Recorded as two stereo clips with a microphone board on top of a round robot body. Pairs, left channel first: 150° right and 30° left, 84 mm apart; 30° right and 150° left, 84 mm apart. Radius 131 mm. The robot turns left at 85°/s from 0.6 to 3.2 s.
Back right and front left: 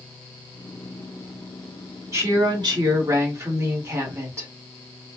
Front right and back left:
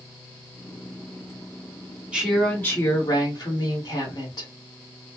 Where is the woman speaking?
75° left, 1.8 m; by 4.5 s 15° right, 1.8 m.